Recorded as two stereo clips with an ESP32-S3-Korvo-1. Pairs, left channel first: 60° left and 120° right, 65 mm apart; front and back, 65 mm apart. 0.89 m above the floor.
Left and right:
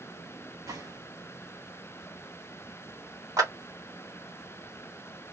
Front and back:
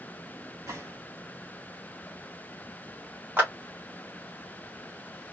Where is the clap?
120° right, 1.9 m.